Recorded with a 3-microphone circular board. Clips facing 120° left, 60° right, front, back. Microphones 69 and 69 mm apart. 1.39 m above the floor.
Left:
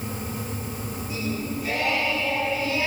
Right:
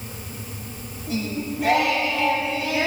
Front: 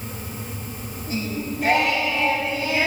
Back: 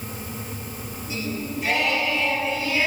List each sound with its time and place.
1.1 s singing: 40° right, 7 m